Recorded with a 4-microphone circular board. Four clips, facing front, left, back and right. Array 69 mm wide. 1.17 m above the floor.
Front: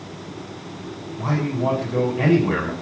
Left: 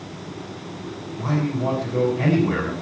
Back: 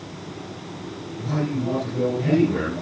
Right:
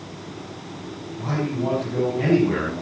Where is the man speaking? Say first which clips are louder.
Left 1 dB, front 3 dB; straight ahead, 9.5 m.